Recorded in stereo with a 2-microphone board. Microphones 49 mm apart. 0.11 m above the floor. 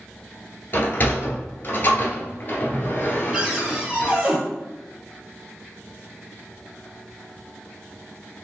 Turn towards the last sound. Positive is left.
turn(degrees=-25)  # may be behind; listen again after turning